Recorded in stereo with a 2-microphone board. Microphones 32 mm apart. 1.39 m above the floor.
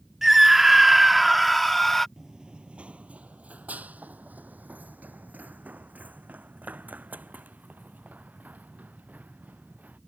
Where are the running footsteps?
20° right (ahead or behind); by 10.0 s 65° right (ahead or behind).